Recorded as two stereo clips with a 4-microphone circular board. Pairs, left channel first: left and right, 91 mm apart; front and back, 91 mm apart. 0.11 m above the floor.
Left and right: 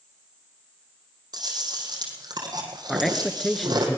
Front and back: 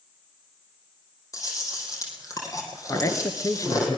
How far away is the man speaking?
About 1.2 m.